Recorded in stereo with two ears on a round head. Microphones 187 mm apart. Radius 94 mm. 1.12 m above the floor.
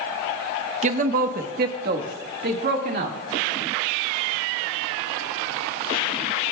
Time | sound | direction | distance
0.8 | a man speaking | 35° right (ahead or behind) | 0.7 m